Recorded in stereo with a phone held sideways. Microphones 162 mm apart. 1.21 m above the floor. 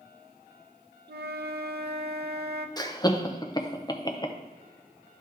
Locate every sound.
1.1 s a flute: 80° right, 0.6 m
2.8 s laughter: 25° left (ahead or behind), 0.8 m